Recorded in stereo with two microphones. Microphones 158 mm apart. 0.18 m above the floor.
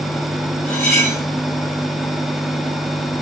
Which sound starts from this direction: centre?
Cutlery clinking, at 0.7 s.